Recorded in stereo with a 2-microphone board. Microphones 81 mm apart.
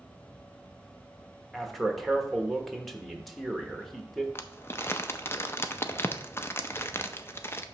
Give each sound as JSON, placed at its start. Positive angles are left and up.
{"t": 1.5, "sound": "a man speaking", "side_deg": 0, "distance_m": 1.2}
{"t": 4.3, "sound": "crumpling", "side_deg": 30, "distance_m": 0.5}